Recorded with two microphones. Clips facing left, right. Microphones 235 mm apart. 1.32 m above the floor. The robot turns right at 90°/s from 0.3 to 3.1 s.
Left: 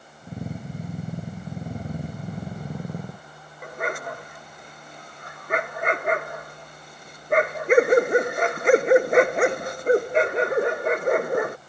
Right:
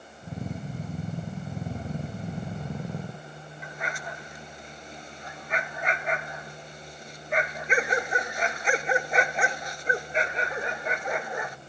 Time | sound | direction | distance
3.6 | a dog barking | 60° left (ahead or behind) | ?